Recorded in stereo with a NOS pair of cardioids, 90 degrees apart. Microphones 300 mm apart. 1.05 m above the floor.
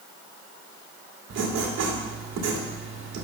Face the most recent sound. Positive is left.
turn(degrees=-60)